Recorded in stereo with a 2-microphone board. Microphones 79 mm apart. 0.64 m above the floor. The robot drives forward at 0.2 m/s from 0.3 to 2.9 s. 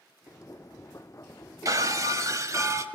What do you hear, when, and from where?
1.6 s breaking glass: 45° right (ahead or behind), 1.7 m; by 2.9 s 40° right (ahead or behind), 1.9 m